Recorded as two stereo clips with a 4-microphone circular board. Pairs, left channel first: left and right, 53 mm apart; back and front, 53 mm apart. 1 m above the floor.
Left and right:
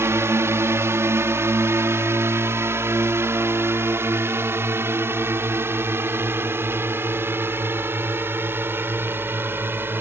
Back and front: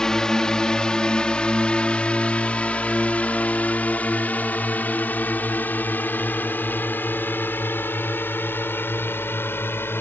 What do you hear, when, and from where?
0.0 s a drone: 105° right; by 10.0 s 135° right